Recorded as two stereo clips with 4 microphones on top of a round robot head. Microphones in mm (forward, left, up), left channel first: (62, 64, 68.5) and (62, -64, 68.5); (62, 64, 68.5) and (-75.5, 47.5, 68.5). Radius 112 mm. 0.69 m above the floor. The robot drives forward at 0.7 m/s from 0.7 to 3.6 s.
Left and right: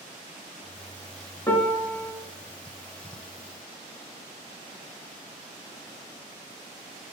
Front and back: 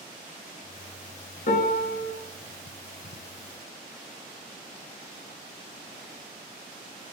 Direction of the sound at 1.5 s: 20° left.